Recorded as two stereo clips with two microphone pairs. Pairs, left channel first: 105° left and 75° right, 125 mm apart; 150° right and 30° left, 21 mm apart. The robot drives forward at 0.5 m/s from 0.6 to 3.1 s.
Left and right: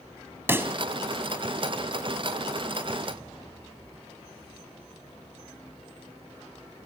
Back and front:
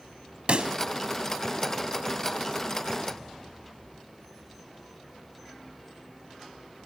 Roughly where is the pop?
Ahead.